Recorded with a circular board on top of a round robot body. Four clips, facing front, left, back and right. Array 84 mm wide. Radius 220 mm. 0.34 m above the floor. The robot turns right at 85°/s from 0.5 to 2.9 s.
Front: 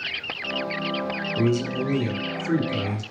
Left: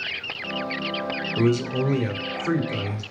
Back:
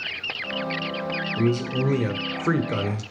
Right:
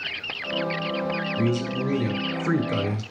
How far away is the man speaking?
About 1.7 m.